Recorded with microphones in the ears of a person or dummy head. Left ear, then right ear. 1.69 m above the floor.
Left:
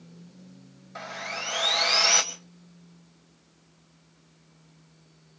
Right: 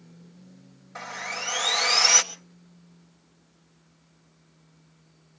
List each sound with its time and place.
0.9 s sawing: 10° right (ahead or behind), 1.5 m